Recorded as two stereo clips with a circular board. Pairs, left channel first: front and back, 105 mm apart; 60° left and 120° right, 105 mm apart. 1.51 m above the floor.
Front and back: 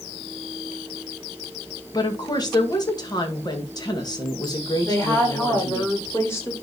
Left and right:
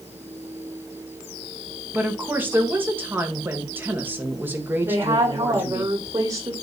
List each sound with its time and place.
1.9 s a woman speaking: 50° right, 1.9 m
4.8 s a woman speaking: 65° right, 4 m